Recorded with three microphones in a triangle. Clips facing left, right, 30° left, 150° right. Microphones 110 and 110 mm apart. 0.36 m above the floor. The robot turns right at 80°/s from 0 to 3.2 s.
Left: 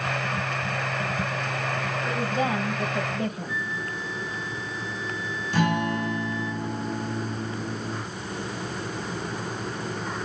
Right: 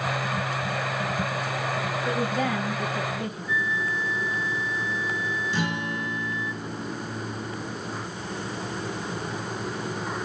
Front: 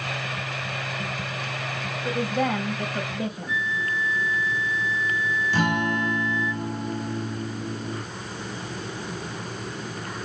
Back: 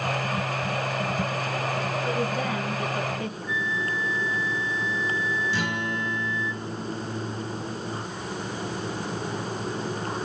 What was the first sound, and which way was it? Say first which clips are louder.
A woman speaking: even, front 6 dB; 5° right.